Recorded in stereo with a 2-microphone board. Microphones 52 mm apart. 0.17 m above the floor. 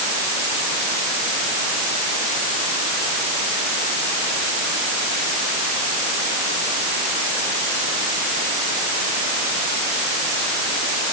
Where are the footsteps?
I don't hear footsteps.